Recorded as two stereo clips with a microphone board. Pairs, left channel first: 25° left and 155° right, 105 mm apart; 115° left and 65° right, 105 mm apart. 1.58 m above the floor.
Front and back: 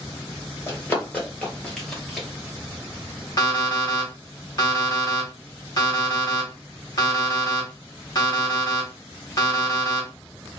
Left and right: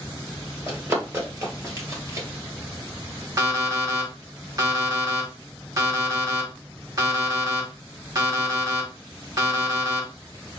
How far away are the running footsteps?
About 1.9 m.